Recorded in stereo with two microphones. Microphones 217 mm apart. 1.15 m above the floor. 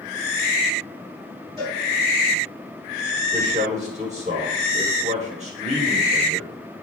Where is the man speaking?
35° right (ahead or behind), 1.2 m.